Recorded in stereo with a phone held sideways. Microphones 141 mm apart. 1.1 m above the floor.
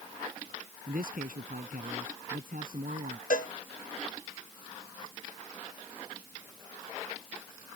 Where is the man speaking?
75° right (ahead or behind).